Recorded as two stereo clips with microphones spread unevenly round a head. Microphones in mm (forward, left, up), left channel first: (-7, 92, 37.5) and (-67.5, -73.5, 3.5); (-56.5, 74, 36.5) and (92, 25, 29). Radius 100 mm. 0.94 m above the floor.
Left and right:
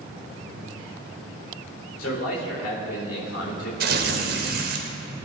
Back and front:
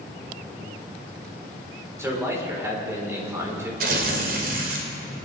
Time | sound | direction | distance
2.0 | a man speaking | 55° left | 4 m
3.8 | tearing paper | 65° right | 2 m